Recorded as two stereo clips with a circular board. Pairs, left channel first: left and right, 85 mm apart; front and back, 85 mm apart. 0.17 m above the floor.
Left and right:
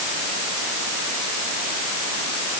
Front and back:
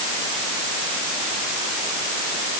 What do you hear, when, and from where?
Only background noise.